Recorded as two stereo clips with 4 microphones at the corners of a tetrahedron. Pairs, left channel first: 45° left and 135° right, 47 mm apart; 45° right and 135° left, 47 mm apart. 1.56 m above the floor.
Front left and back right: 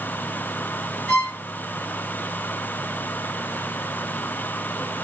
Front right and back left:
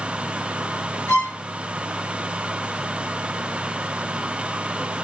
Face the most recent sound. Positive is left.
turn(degrees=-15)